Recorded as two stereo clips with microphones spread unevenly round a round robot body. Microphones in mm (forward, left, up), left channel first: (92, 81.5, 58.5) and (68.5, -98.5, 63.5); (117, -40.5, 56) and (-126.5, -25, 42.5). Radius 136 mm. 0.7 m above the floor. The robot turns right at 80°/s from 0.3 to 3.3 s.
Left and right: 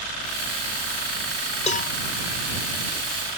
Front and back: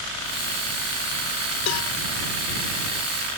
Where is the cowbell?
25° left; by 1.9 s 50° left.